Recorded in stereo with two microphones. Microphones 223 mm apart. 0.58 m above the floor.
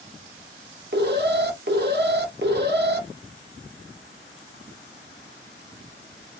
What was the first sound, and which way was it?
An alarm, 50° right (ahead or behind).